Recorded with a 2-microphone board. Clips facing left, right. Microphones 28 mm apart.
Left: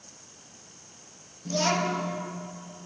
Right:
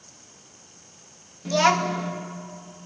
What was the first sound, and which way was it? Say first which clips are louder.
A child speaking: right 6 dB; 70° right (ahead or behind).